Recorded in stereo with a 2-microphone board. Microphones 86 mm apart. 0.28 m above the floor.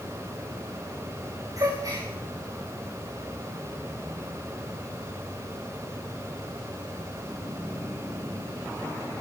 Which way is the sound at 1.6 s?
40° right (ahead or behind).